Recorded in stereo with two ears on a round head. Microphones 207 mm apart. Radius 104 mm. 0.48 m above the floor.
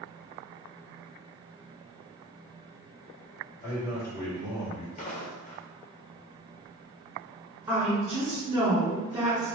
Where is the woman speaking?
10° right (ahead or behind), 1.7 m.